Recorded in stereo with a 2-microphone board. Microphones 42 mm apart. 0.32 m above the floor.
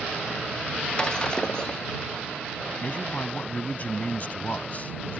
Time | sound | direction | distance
1.0 | breaking glass | 20° left (ahead or behind) | ?
2.8 | a man speaking | 40° left (ahead or behind) | ?